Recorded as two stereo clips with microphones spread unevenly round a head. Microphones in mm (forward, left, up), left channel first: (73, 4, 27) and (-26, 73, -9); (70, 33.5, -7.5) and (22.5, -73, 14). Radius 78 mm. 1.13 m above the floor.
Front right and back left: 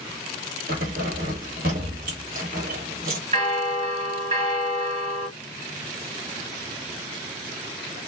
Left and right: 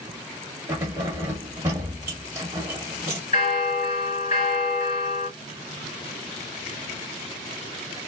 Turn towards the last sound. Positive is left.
turn(degrees=110)